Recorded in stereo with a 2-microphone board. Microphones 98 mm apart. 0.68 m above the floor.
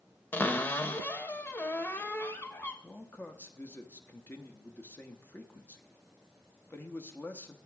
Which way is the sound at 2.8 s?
20° left (ahead or behind).